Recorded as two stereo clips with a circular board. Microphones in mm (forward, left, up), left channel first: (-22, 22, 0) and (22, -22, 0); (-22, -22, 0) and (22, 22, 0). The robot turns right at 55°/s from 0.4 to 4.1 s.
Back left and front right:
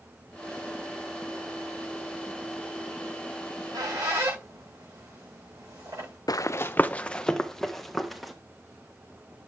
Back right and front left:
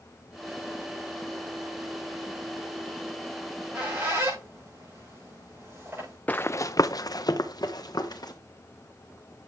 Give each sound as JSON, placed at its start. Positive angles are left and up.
{"t": 3.4, "sound": "a squeak", "azimuth_deg": -45, "distance_m": 8.0}
{"t": 6.3, "sound": "running footsteps", "azimuth_deg": 160, "distance_m": 0.5}